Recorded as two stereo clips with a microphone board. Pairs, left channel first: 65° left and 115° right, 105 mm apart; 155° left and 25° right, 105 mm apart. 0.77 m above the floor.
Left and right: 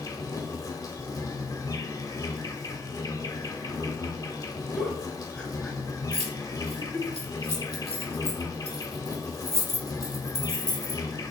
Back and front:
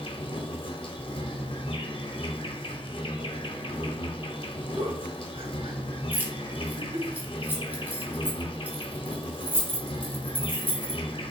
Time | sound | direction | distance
0.0 | an insect | 125° left | 0.8 m
4.8 | a giggle | 10° right | 1.4 m
6.1 | keys jangling | 95° right | 1.1 m